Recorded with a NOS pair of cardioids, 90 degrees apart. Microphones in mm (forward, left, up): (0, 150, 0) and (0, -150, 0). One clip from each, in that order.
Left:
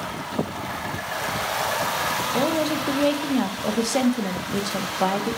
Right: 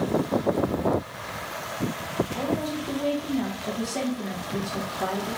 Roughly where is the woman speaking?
Ahead left.